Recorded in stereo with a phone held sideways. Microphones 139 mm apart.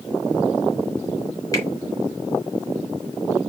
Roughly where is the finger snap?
Left.